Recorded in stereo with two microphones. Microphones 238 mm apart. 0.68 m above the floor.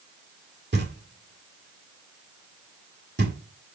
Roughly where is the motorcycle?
No motorcycle in this recording.